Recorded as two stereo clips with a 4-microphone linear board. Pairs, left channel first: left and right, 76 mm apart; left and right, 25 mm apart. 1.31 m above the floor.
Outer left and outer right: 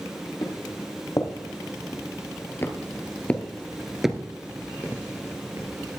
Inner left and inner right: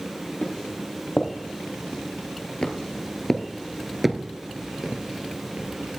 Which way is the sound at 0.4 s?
60° left (ahead or behind).